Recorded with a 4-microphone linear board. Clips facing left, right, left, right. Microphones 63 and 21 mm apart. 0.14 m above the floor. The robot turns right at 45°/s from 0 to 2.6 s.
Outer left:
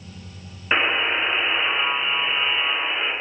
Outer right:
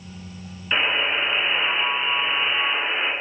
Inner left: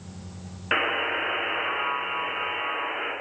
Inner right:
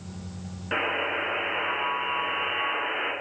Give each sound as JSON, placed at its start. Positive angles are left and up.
{"t": 0.7, "sound": "a buzzer", "azimuth_deg": 125, "distance_m": 0.5}